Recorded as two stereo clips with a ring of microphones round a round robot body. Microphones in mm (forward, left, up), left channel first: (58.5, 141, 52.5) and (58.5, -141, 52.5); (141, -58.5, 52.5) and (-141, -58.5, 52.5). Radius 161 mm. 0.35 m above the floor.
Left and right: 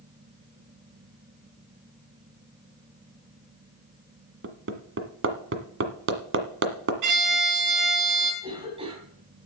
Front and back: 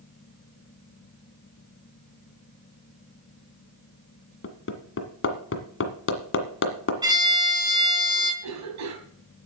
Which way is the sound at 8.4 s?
160° right.